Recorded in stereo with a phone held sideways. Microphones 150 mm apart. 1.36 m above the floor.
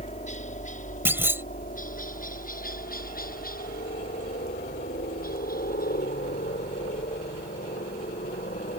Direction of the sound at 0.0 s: 50° left (ahead or behind).